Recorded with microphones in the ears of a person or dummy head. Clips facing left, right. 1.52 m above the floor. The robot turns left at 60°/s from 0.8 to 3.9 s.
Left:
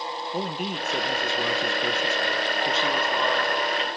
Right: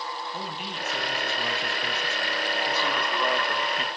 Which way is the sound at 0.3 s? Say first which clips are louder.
Left 6 dB; 140° left.